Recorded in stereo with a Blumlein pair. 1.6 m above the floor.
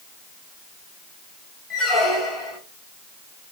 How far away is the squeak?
About 1.8 m.